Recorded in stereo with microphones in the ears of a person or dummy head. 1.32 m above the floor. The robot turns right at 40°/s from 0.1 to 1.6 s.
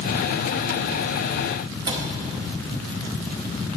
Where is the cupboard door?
25° right (ahead or behind), 0.8 m.